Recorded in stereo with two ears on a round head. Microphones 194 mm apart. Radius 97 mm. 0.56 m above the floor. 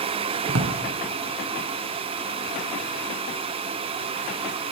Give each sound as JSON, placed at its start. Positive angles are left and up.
{"t": 0.5, "sound": "a drawer", "side_deg": -80, "distance_m": 2.0}